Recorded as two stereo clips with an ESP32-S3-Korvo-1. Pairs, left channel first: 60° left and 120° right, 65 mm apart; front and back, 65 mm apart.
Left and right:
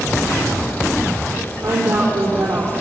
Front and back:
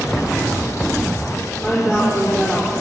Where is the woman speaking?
85° right, 6 m.